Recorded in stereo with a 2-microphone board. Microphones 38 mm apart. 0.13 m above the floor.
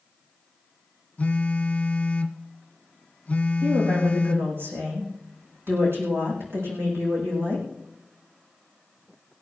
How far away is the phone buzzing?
About 1.2 m.